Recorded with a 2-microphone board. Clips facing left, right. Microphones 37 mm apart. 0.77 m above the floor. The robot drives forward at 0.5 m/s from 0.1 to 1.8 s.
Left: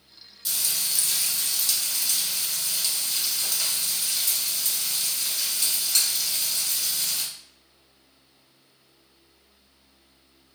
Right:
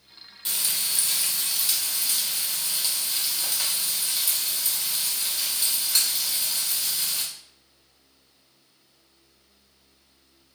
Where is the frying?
40° right (ahead or behind), 0.6 m; by 7.2 s 20° right (ahead or behind), 1.1 m.